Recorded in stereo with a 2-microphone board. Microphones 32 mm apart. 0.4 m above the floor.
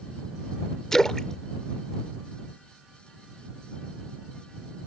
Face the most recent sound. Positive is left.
turn(degrees=15)  # may be behind; listen again after turning